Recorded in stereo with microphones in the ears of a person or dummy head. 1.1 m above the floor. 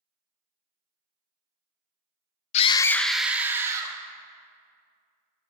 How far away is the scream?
About 0.6 m.